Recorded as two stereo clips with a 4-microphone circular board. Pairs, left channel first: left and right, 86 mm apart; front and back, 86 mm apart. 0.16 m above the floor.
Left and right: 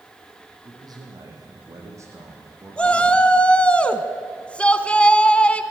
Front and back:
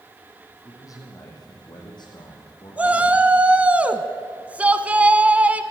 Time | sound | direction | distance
0.7 | a man speaking | 50° right | 5.5 m
2.8 | a shout | 140° left | 1.0 m